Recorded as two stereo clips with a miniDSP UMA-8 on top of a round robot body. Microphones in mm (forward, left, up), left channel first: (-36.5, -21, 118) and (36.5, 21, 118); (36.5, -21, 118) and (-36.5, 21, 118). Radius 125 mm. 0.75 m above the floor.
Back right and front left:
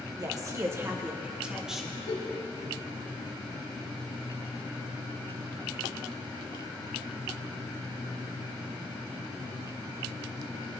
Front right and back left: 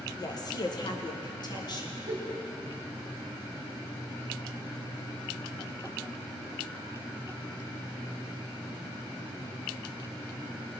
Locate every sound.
0.2 s a woman speaking: straight ahead, 1.4 m; by 2.0 s 60° right, 1.6 m
2.1 s a giggle: 160° right, 2.0 m